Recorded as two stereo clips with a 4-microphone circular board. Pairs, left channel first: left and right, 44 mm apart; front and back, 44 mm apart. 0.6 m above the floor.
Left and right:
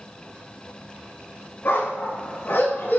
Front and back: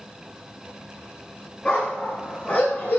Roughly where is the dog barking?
Ahead left.